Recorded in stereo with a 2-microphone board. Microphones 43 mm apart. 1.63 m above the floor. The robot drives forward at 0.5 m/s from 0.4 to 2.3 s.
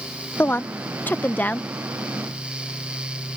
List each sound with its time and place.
0.4 s a woman speaking: 50° left (ahead or behind); by 1.7 s 40° left (ahead or behind)